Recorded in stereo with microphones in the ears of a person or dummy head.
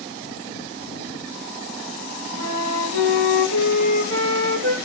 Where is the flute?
65° right (ahead or behind), 1.3 m.